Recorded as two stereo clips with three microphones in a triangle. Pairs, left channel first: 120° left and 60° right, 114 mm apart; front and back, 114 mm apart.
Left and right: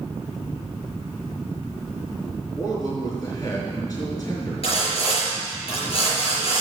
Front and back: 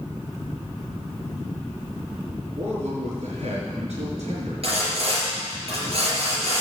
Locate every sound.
2.6 s a man speaking: 175° left, 4.5 m
4.6 s sawing: 150° left, 5 m